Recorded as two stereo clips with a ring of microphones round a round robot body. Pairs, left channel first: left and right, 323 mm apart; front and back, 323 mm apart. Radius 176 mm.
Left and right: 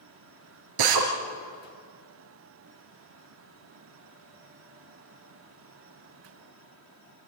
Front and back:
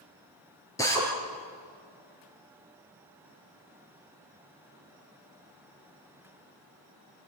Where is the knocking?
No knocking in this recording.